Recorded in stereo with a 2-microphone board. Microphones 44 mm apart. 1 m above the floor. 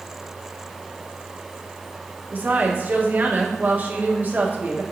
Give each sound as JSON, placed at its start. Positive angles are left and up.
{"t": 2.3, "sound": "a woman speaking", "side_deg": -45, "distance_m": 1.2}